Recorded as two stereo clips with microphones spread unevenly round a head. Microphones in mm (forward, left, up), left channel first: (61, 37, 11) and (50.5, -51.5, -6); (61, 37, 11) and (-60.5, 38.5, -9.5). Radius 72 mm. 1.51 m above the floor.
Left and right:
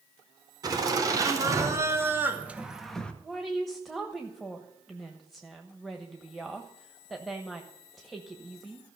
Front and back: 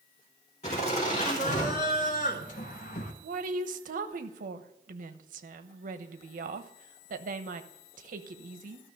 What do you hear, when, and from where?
0.6 s laughter: 50° right, 4 m; by 3.1 s 10° left, 1.6 m
3.2 s a woman speaking: 170° left, 1.1 m